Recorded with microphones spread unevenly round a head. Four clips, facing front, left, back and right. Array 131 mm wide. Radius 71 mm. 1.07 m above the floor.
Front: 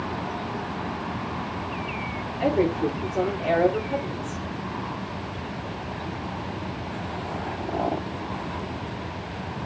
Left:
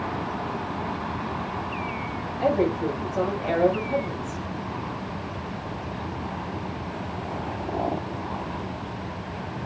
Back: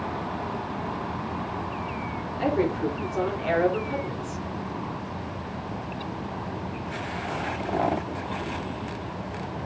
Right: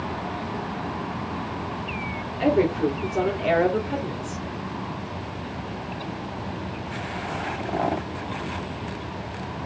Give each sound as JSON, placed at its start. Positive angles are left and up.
{"t": 2.4, "sound": "a woman speaking", "azimuth_deg": -90, "distance_m": 3.0}